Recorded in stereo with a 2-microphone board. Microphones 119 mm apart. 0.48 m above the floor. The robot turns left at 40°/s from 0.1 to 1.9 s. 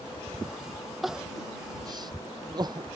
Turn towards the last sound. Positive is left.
turn(degrees=-35)  # may be behind; listen again after turning